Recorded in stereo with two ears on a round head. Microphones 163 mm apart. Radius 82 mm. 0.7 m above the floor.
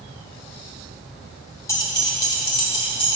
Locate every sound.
1.7 s keys jangling: 20° left (ahead or behind), 1.3 m; by 3.2 s 35° left (ahead or behind), 2.5 m